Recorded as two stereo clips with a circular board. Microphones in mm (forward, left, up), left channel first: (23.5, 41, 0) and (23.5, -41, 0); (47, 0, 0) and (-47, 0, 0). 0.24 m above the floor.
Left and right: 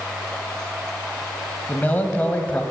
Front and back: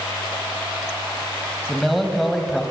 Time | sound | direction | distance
1.7 | a man speaking | 90° left | 1.0 m